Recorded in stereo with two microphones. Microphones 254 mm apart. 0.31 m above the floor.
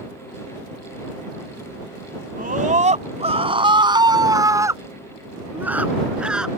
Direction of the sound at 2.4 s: 35° right (ahead or behind).